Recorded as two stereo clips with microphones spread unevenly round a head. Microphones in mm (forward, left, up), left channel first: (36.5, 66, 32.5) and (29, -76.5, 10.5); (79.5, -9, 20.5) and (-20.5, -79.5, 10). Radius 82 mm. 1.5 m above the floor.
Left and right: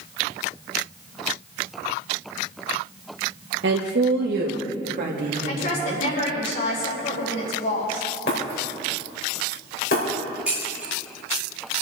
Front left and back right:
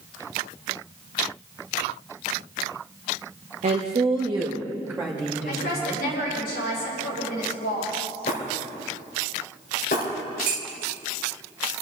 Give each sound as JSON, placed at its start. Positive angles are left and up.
{"t": 3.6, "sound": "a woman speaking", "azimuth_deg": -120, "distance_m": 1.3}
{"t": 5.5, "sound": "a woman speaking", "azimuth_deg": 60, "distance_m": 5.0}
{"t": 8.3, "sound": "breaking glass", "azimuth_deg": 75, "distance_m": 4.5}
{"t": 10.5, "sound": "dishes clattering", "azimuth_deg": 180, "distance_m": 1.7}